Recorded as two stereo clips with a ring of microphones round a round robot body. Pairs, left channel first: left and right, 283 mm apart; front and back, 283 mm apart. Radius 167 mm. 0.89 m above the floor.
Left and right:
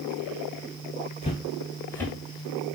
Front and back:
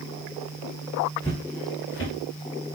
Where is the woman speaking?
I don't hear a woman speaking.